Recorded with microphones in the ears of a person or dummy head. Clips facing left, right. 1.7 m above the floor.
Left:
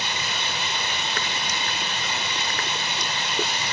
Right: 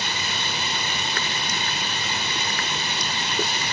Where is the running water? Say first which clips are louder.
Even; 40° right (ahead or behind), 1.8 m.